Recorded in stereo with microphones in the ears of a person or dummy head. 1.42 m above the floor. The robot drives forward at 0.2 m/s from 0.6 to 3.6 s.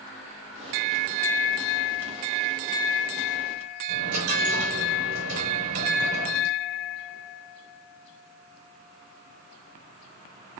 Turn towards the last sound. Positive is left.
turn(degrees=-75)  # may be behind; listen again after turning